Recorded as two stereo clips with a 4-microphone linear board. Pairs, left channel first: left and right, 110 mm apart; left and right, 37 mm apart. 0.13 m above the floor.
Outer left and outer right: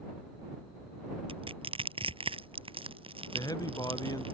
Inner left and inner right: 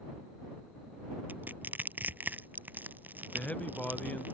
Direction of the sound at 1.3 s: 60° right (ahead or behind).